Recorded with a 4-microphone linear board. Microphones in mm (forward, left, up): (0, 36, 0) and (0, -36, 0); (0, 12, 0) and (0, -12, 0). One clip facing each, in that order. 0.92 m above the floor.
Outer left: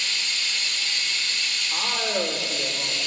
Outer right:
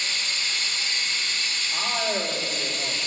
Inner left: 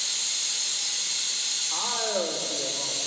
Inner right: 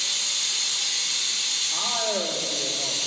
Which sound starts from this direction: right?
Running water, at 0.0 s.